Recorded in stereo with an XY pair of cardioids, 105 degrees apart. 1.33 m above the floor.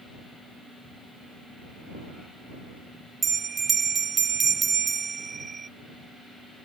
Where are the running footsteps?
I don't hear running footsteps.